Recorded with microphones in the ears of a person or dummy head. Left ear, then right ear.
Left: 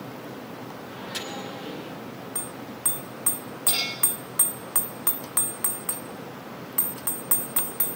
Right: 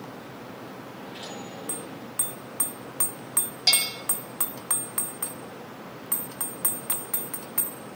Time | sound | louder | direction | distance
0.9 | a microwave | left 7 dB | 60° left (ahead or behind) | 10 m
3.7 | a bell | right 4 dB | 65° right (ahead or behind) | 5.5 m